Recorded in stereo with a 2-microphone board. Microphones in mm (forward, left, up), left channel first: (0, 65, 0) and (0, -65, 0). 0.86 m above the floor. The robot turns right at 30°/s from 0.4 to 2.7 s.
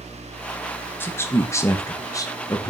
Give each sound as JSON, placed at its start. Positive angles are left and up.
{"t": 1.0, "sound": "a man speaking", "side_deg": 15, "distance_m": 1.0}